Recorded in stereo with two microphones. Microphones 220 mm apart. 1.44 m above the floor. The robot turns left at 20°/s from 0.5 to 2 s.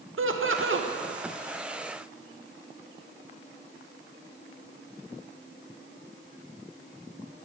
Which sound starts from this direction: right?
Laughter, at 0.2 s.